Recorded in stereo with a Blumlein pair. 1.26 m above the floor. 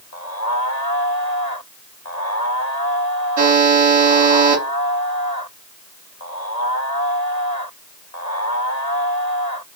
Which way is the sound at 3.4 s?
50° right.